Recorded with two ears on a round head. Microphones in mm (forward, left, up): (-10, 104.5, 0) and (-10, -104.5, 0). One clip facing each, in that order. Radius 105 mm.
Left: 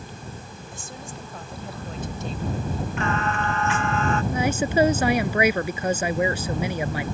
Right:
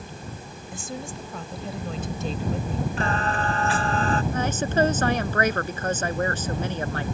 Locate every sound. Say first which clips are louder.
0.7 s a woman speaking: right 6 dB; 65° right (ahead or behind)
3.0 s singing: left 2 dB; 30° right (ahead or behind)
4.3 s a woman speaking: left 2 dB; 10° left (ahead or behind)